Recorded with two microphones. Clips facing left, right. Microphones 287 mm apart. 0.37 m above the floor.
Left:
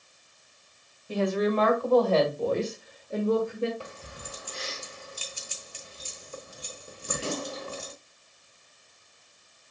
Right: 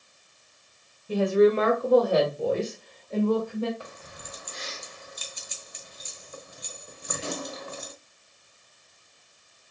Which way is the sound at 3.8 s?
30° left (ahead or behind).